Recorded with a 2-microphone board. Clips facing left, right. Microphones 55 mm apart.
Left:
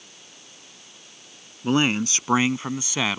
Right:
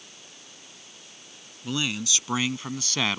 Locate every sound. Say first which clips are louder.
1.6 s a man speaking: left 8 dB; 45° left (ahead or behind); by 3.2 s 5° left (ahead or behind)